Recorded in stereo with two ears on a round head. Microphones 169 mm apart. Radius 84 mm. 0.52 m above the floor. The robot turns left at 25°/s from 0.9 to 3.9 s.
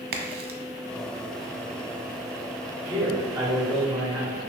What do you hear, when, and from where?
0.1 s a crack: 55° right (ahead or behind), 0.6 m
2.9 s a man speaking: 30° right (ahead or behind), 1.5 m; by 4.4 s 15° right (ahead or behind), 1.5 m